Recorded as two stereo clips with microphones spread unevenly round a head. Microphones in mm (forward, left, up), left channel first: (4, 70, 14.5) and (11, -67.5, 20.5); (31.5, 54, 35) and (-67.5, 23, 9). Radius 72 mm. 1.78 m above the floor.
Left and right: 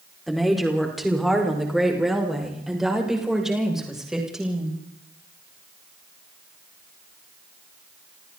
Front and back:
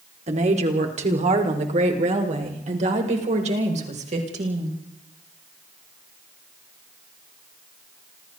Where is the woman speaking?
175° right, 4.5 m.